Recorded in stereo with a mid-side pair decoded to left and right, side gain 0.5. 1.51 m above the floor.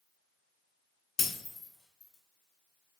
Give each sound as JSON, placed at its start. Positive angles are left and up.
{"t": 1.2, "sound": "breaking glass", "azimuth_deg": 50, "distance_m": 1.9}